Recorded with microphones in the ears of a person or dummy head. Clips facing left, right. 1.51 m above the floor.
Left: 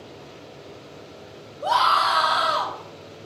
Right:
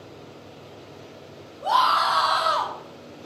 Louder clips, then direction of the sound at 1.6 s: Even; 50° left (ahead or behind).